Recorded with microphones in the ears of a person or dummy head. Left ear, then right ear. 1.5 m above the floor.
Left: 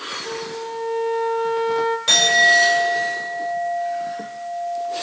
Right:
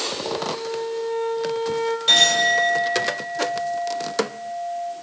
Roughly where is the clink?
Centre.